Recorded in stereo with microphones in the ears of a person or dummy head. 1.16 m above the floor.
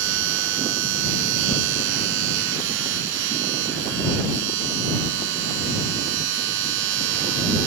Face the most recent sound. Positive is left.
turn(degrees=-70)  # may be behind; listen again after turning